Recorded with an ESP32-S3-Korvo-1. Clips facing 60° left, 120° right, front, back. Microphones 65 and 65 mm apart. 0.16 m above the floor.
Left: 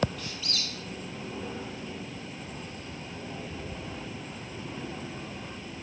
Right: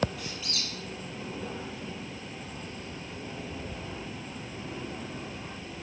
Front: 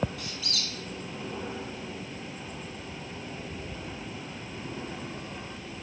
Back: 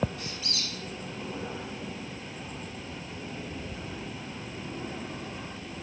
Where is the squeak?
160° left, 1.1 m.